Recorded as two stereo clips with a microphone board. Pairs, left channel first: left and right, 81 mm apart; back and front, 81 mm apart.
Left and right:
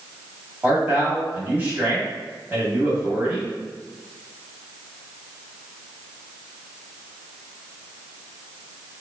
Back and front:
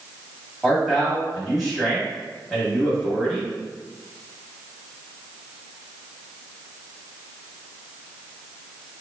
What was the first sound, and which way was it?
A man speaking, 100° right.